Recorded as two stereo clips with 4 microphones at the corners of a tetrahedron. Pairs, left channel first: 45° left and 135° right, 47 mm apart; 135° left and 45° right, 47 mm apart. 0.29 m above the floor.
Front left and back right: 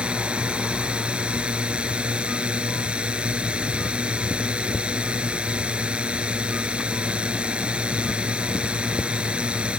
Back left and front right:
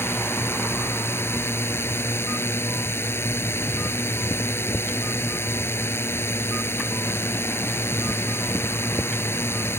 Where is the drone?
160° left.